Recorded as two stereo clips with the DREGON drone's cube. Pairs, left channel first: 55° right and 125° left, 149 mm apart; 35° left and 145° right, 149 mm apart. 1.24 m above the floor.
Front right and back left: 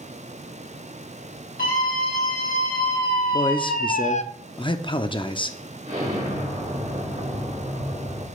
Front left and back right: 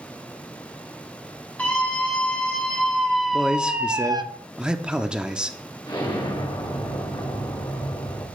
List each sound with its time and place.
1.6 s a scream: 45° right, 2.5 m; by 4.2 s 90° right, 0.5 m
3.3 s a man speaking: 65° right, 0.6 m
5.9 s an explosion: 90° left, 2.0 m